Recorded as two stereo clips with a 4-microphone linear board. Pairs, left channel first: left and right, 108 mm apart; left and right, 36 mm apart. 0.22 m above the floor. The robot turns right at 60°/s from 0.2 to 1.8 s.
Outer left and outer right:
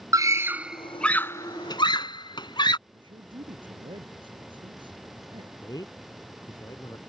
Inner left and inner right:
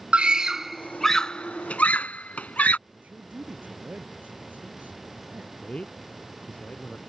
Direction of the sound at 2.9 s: 50° right (ahead or behind).